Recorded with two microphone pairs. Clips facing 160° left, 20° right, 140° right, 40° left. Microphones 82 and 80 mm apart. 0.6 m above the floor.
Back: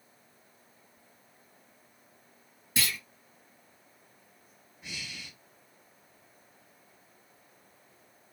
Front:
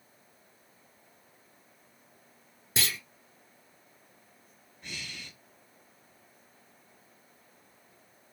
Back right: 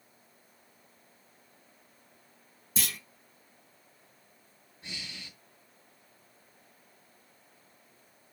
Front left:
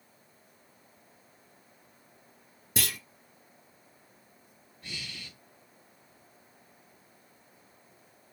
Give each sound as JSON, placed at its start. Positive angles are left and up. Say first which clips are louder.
{"t": 2.8, "sound": "a clunk", "louder": "even, front left 3 dB", "azimuth_deg": 45, "distance_m": 1.5}
{"t": 4.8, "sound": "breathing", "louder": "even, front left 1 dB", "azimuth_deg": -130, "distance_m": 1.1}